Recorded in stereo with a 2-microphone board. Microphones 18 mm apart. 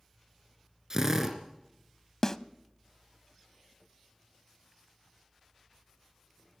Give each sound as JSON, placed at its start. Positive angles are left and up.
{"t": 0.9, "sound": "a drill", "side_deg": -25, "distance_m": 2.5}
{"t": 2.2, "sound": "a snare drum", "side_deg": 25, "distance_m": 0.6}